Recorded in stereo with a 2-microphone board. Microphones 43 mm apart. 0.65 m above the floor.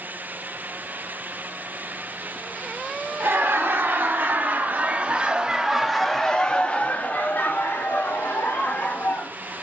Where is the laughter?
60° right (ahead or behind), 1.7 m; by 9.3 s 65° left (ahead or behind), 1.9 m.